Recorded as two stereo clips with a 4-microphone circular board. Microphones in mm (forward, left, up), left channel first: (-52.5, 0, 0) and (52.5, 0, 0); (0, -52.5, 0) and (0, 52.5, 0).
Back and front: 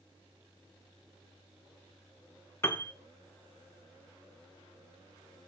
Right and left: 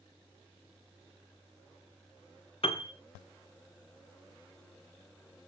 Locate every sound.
2.6 s a piano: 115° right, 1.4 m